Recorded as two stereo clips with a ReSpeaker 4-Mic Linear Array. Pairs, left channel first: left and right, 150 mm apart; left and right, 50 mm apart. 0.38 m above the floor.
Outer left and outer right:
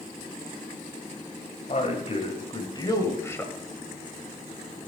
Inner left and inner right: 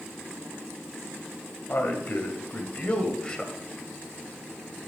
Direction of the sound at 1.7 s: 50° left (ahead or behind).